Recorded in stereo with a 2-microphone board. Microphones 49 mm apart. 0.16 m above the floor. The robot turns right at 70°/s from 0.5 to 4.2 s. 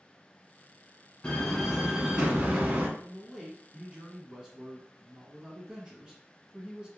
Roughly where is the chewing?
I don't hear chewing.